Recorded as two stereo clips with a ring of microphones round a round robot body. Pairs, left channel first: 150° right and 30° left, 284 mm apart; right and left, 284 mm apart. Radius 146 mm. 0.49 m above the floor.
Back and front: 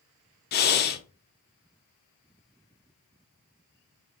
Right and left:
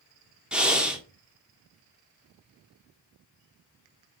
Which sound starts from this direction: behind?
Breathing, at 0.5 s.